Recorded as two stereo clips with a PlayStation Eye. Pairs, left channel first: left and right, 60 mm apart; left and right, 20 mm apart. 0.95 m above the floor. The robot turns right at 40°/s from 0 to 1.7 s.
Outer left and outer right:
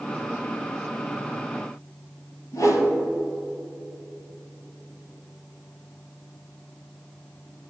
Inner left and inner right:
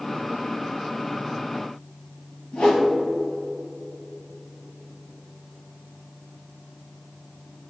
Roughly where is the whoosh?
Left.